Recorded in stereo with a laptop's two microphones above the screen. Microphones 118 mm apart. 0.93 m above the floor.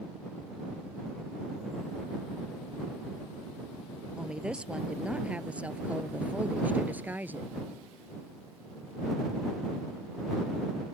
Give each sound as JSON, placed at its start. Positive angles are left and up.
{"t": 4.2, "sound": "a woman speaking", "side_deg": -5}